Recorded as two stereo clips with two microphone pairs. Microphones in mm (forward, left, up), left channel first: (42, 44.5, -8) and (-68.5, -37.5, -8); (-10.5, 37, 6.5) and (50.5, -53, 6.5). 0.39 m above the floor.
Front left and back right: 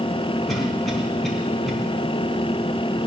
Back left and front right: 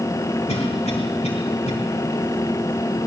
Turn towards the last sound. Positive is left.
turn(degrees=125)